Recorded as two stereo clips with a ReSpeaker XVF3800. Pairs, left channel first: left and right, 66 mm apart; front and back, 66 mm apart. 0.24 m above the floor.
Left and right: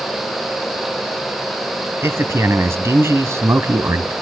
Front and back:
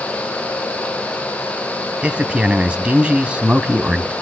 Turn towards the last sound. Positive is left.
turn(degrees=-115)